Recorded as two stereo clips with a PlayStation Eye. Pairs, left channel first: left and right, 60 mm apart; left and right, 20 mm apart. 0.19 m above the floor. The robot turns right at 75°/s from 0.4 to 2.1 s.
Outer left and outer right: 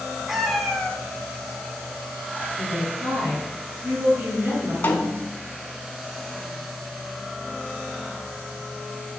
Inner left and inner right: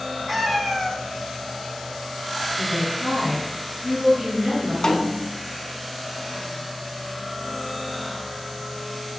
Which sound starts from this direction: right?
A woman speaking, at 2.6 s.